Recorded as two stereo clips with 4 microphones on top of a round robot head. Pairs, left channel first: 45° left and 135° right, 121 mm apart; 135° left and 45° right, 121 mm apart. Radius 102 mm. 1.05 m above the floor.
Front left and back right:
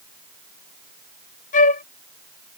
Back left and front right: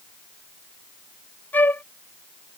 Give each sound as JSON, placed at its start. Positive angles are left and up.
{"t": 1.5, "sound": "a flute", "azimuth_deg": 60}